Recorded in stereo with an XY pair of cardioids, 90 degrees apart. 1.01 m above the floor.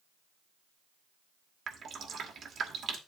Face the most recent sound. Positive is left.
turn(degrees=-60)